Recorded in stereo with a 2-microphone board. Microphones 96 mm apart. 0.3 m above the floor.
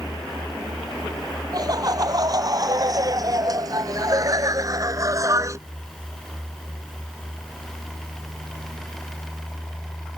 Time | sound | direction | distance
1.5 | laughter | 45° right (ahead or behind) | ?